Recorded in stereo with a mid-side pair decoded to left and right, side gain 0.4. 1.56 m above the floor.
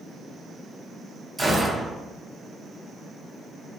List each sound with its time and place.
1.4 s a gunshot: 10° right, 0.9 m